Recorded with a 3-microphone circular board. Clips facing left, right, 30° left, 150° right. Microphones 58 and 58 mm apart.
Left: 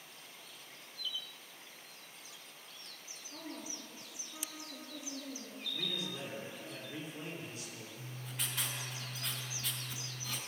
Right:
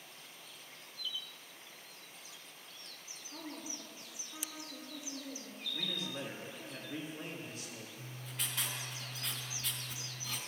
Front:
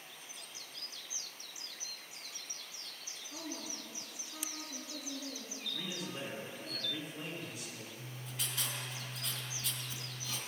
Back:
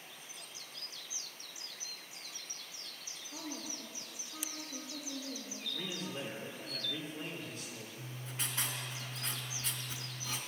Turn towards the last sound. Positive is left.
turn(degrees=175)